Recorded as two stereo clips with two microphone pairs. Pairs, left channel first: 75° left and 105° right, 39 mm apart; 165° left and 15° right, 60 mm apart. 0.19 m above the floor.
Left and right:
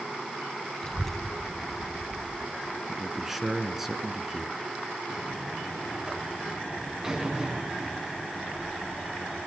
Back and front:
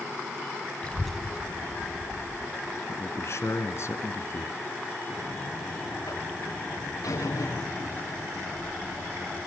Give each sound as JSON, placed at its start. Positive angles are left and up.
{"t": 0.8, "sound": "a child speaking", "azimuth_deg": 140, "distance_m": 0.8}
{"t": 2.9, "sound": "a man speaking", "azimuth_deg": 180, "distance_m": 2.5}
{"t": 5.1, "sound": "a buzzer", "azimuth_deg": -175, "distance_m": 5.5}